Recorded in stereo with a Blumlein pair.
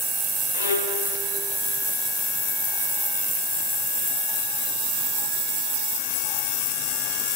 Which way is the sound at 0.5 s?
70° left.